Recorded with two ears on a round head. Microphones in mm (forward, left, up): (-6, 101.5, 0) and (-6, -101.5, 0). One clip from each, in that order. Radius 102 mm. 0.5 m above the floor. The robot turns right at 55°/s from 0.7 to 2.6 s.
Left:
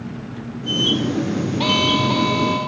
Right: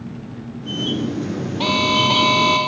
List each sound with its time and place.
0.0 s an engine running: 35° left; by 2.7 s 140° left
1.6 s an alarm: 175° right; by 2.7 s 120° right